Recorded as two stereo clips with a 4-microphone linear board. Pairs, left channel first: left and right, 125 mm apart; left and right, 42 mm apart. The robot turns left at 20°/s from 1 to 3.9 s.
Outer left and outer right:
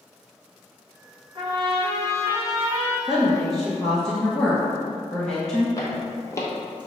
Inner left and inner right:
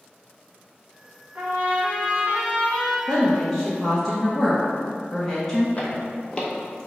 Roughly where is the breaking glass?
No breaking glass in this recording.